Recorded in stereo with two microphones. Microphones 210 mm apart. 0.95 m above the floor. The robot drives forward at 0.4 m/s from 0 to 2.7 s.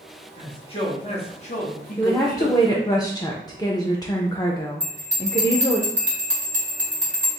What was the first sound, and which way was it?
A man speaking, 25° left (ahead or behind).